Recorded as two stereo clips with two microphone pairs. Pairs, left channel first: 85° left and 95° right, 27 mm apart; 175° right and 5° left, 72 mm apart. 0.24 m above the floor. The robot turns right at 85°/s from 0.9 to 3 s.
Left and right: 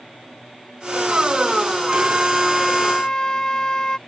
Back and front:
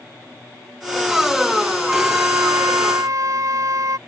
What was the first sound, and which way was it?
A flute, 75° right.